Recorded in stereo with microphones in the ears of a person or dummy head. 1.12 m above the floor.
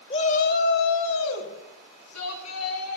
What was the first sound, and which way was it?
A shout, 30° left (ahead or behind).